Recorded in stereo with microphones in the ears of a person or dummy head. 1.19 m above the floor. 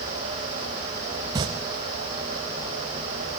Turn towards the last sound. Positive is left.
turn(degrees=-20)  # may be behind; listen again after turning